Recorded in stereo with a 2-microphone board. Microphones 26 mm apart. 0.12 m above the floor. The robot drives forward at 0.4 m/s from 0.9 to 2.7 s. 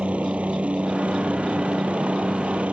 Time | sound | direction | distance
0.0 | a helicopter | 55° right (ahead or behind) | ?